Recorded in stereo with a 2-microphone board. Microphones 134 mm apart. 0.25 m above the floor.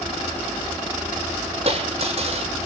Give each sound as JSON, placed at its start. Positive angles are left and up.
{"t": 1.6, "sound": "a dropped coin", "side_deg": -50, "distance_m": 5.5}